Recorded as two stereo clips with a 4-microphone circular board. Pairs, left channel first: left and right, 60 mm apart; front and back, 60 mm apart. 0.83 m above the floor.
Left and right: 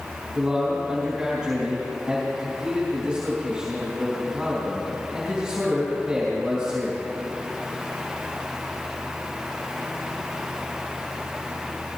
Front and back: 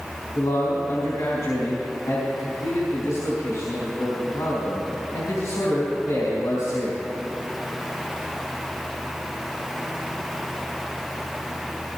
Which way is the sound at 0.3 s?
15° right.